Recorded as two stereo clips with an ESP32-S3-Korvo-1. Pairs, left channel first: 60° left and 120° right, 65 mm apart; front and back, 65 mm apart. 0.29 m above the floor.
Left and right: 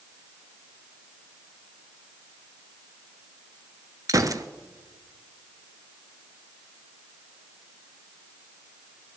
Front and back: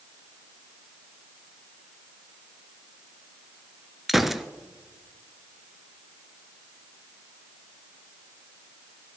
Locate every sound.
4.1 s a gunshot: 95° right, 0.7 m